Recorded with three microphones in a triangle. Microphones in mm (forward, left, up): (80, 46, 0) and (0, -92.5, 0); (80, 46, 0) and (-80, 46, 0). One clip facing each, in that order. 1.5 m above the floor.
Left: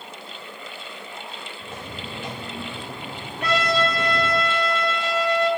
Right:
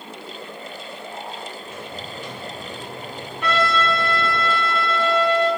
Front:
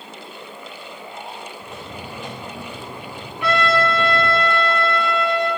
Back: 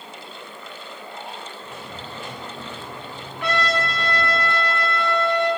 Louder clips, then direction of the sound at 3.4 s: Right 1 dB, front 5 dB; 110° left.